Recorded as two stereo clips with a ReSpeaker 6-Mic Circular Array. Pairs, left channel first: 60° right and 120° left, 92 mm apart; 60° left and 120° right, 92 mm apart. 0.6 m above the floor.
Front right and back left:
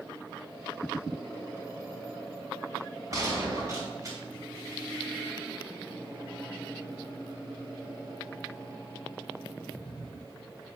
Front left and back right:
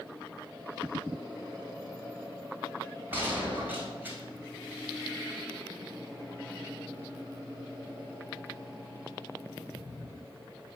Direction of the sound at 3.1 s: 170° left.